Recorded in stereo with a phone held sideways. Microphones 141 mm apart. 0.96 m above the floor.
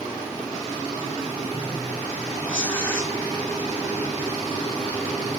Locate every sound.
2.5 s tearing paper: 10° left (ahead or behind), 2.0 m